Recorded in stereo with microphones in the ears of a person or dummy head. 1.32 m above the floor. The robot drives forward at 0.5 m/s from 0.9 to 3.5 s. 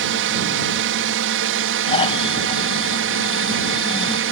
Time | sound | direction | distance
0.0 | a drone | 65° right (ahead or behind) | ?
1.9 | snoring | 35° left (ahead or behind) | ?